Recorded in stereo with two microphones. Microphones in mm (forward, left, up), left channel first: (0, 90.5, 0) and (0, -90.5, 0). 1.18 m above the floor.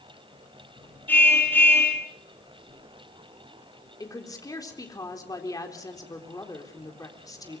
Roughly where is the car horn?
Centre.